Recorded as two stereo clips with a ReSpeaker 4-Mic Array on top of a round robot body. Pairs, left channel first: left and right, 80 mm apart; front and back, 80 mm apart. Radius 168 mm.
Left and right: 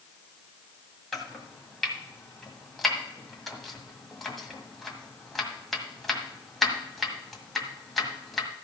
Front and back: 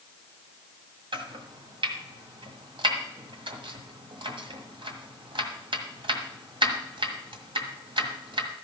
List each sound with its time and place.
1.1 s chopping: straight behind, 1.7 m